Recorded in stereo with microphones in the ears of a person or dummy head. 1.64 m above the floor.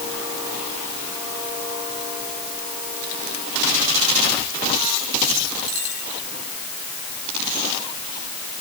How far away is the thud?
I don't hear a thud.